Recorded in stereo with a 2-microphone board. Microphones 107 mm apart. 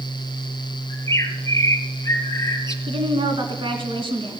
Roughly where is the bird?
Left.